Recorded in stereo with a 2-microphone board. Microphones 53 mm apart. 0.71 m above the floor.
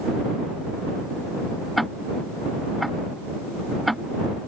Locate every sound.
1.8 s ticking: centre (ahead or behind)